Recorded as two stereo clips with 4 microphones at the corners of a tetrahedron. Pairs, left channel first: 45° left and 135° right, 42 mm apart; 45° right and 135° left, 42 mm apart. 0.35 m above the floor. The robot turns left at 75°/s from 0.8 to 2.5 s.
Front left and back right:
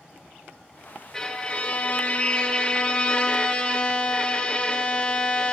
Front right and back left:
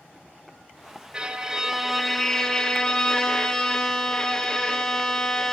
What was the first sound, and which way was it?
A violin, 110° left.